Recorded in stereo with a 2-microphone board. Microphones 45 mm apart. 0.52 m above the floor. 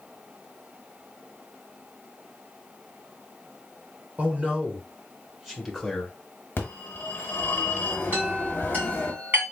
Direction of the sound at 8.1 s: 45° right (ahead or behind).